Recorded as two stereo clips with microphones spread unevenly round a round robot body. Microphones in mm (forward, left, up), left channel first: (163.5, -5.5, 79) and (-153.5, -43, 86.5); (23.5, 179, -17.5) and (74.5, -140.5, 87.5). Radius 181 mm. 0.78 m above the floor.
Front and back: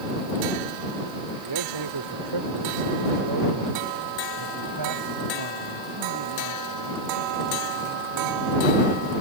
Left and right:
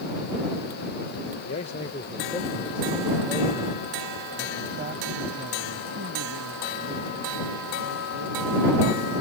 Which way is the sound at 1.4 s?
160° left.